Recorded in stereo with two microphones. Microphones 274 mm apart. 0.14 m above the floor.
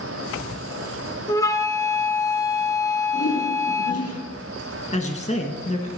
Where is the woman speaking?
25° left (ahead or behind), 1.7 m.